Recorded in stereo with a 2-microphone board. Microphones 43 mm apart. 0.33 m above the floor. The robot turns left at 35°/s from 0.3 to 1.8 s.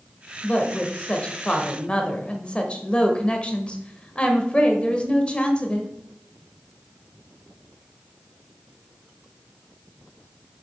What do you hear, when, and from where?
0.4 s a woman speaking: 105° left, 1.2 m; by 5.9 s 55° left, 1.2 m